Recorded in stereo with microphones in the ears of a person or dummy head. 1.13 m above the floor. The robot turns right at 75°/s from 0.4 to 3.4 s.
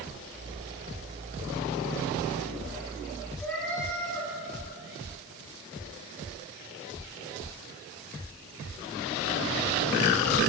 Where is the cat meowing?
10° left (ahead or behind), 4.5 m.